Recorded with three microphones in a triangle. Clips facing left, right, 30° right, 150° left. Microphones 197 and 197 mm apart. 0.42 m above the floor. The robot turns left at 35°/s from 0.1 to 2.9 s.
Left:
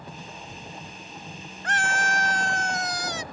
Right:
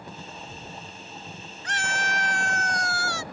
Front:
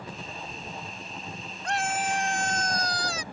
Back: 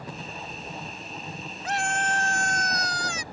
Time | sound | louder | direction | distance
1.6 | a scream | left 4 dB, even | 65° left | ?